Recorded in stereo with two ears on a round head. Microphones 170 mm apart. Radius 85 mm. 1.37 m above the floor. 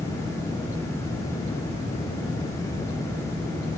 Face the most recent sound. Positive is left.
No sound to turn to.